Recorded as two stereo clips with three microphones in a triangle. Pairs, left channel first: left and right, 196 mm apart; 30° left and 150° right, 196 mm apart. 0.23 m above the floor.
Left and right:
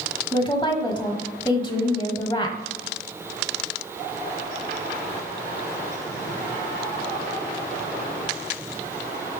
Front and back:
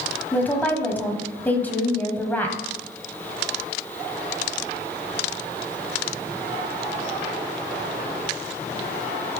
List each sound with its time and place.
0.3 s a woman speaking: 95° left, 1.1 m